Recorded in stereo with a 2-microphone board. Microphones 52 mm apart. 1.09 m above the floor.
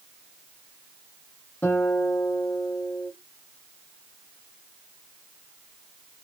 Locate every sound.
1.6 s a guitar: 40° left (ahead or behind), 1.2 m